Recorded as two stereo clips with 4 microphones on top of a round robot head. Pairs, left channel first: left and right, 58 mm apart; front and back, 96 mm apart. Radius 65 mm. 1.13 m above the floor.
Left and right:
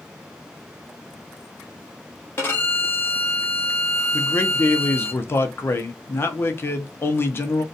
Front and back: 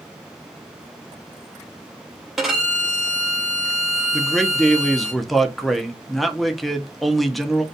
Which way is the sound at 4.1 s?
90° left.